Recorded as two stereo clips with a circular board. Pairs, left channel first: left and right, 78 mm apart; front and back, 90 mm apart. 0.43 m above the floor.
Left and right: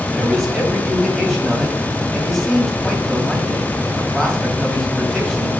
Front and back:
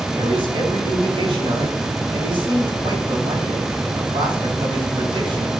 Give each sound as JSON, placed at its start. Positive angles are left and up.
{"t": 0.1, "sound": "a man speaking", "azimuth_deg": 175, "distance_m": 2.5}